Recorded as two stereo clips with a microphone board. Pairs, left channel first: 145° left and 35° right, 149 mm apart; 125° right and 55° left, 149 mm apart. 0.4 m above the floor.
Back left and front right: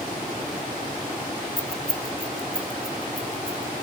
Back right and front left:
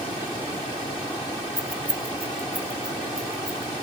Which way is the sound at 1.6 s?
25° left.